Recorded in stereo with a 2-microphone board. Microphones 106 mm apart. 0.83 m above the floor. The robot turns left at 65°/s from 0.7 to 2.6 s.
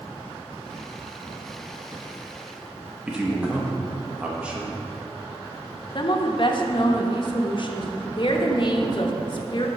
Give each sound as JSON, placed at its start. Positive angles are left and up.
{"t": 3.1, "sound": "a man speaking", "side_deg": -10, "distance_m": 0.8}
{"t": 6.0, "sound": "a woman speaking", "side_deg": 45, "distance_m": 0.7}